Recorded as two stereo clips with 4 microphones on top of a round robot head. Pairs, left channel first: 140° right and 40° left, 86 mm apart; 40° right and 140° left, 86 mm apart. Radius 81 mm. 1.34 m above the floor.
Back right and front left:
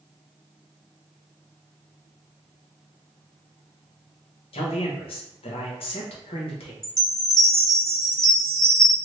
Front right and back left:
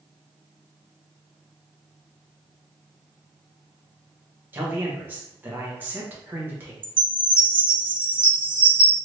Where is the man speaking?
150° right, 1.0 m.